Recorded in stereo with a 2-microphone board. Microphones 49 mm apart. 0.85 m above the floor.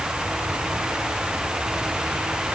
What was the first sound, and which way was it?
Only background noise.